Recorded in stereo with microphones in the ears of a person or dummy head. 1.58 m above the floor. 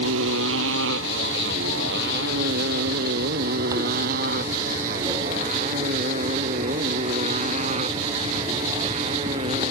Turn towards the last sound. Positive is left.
turn(degrees=-25)  # may be behind; listen again after turning